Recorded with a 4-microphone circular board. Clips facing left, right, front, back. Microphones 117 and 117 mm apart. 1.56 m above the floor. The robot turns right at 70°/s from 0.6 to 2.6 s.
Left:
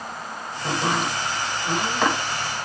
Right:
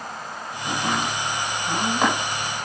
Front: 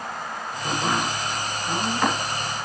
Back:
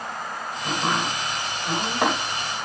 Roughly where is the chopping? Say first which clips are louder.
Left 1 dB, even; left.